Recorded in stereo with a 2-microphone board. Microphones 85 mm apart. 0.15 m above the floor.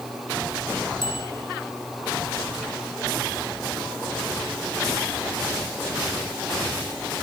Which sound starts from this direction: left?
A bicycle bell, at 1.0 s.